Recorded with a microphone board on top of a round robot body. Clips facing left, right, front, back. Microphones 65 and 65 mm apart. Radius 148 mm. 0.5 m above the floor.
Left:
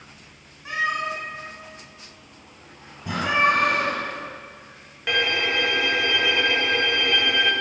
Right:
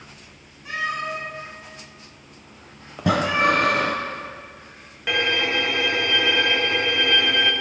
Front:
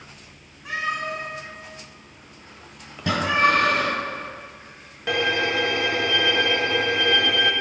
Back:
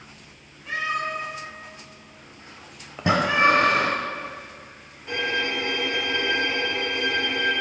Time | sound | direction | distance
0.7 | a cat meowing | 25° left | 3.5 m
3.0 | breathing | 110° right | 0.6 m
5.1 | a violin | 5° right | 0.6 m